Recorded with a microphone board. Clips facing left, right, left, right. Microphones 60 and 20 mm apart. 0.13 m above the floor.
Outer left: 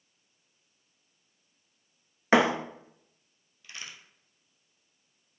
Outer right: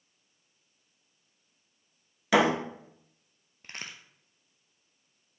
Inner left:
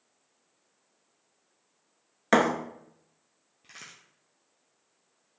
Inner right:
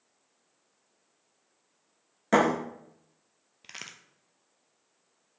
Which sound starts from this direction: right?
A crack, at 3.6 s.